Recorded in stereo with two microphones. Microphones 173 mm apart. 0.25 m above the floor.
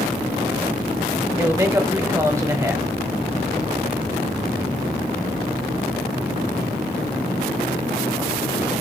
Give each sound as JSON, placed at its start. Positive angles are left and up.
{"t": 1.4, "sound": "a man speaking", "side_deg": -15, "distance_m": 1.2}